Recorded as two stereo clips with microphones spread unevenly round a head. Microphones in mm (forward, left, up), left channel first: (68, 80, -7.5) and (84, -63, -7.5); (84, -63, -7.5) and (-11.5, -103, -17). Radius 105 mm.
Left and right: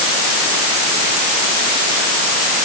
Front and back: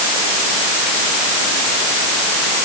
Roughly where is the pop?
I don't hear a pop.